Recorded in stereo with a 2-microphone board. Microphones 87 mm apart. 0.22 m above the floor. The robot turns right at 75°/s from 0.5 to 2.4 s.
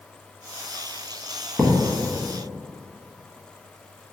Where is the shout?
No shout in this recording.